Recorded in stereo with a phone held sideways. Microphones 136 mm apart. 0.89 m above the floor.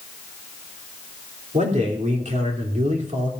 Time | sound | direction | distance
1.5 | a man speaking | 60° right (ahead or behind) | 3 m